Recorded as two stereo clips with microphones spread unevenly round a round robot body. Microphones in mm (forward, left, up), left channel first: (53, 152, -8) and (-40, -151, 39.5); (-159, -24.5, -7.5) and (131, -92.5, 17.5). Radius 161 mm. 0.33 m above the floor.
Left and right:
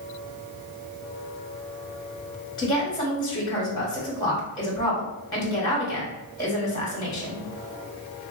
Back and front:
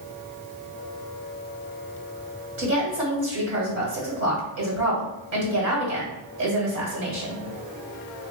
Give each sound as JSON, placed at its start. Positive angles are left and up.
{"t": 2.6, "sound": "a woman speaking", "azimuth_deg": 15, "distance_m": 1.4}